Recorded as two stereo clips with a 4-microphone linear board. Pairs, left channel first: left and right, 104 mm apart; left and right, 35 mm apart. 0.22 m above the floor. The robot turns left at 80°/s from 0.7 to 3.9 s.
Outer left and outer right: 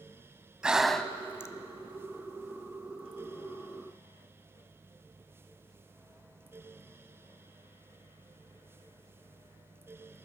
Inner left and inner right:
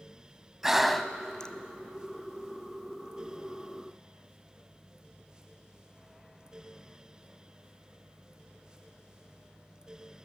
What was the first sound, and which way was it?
Breathing, 10° right (ahead or behind).